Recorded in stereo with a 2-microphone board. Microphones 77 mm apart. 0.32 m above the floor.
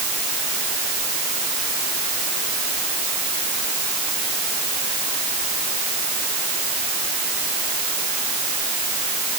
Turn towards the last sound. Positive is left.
No sound to turn to.